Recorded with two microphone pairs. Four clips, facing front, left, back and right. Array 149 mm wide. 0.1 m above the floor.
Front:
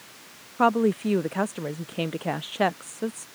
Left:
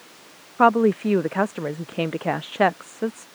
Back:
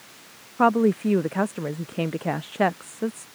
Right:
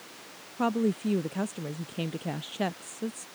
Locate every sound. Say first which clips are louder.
0.6 s a woman speaking: left 10 dB, back 2 dB; 85° left